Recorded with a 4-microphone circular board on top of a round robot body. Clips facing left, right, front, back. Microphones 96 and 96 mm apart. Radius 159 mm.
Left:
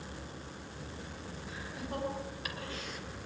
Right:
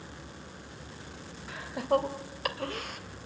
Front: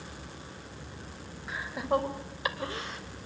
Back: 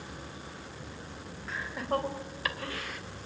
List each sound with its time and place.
1.5 s laughter: 80° right, 3 m; by 3.0 s 60° right, 2.5 m